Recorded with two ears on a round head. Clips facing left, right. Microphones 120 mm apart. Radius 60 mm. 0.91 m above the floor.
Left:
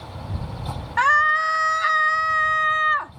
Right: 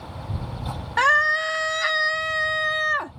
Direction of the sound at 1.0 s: 40° right (ahead or behind).